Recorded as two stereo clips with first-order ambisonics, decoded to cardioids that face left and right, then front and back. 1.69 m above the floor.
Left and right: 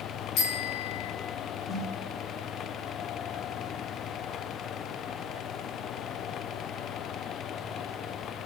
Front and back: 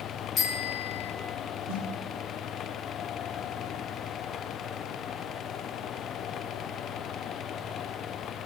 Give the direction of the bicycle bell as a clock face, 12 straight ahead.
10 o'clock.